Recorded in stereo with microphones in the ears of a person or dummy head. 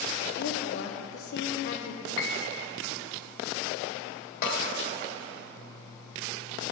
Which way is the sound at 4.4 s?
50° left (ahead or behind).